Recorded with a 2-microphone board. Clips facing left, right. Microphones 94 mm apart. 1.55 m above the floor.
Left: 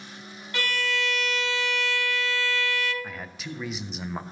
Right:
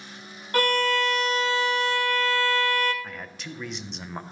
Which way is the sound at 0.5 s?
45° right (ahead or behind).